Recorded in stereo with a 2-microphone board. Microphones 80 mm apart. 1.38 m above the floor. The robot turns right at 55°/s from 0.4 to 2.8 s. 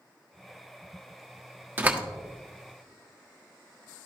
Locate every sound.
1.8 s a door slam: 25° right (ahead or behind), 1.3 m; by 2.0 s 15° right (ahead or behind), 1.3 m